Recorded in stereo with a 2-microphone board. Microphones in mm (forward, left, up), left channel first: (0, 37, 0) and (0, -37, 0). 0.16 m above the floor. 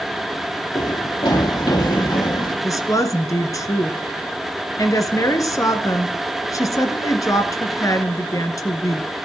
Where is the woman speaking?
45° left (ahead or behind), 2.5 m.